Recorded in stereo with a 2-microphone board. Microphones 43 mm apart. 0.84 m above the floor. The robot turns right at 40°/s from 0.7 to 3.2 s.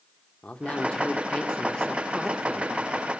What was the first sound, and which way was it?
A man speaking, 105° left.